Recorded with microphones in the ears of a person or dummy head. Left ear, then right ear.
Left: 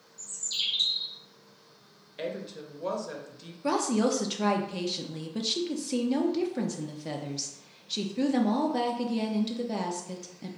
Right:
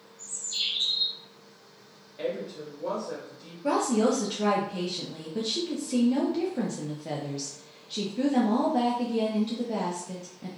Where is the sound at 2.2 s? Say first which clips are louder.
Right 3 dB; 45° left (ahead or behind), 0.6 m.